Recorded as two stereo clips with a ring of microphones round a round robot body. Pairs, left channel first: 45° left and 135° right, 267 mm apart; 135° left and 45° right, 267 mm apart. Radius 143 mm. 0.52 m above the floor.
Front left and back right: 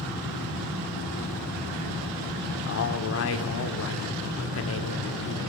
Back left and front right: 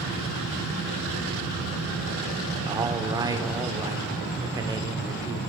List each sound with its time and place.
2.7 s a man speaking: 30° left, 1.7 m